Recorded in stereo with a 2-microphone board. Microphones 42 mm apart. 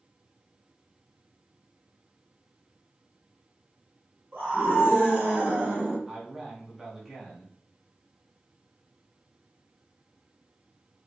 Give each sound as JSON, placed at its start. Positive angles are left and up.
{"t": 4.3, "sound": "a scream", "side_deg": -45, "distance_m": 1.7}
{"t": 6.1, "sound": "a man speaking", "side_deg": -5, "distance_m": 1.5}